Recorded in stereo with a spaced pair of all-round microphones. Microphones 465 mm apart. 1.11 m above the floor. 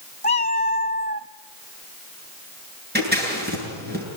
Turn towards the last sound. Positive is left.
turn(degrees=-20)  # may be behind; listen again after turning